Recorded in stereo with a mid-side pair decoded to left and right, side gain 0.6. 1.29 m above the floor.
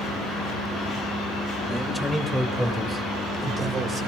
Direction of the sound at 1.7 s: Straight ahead.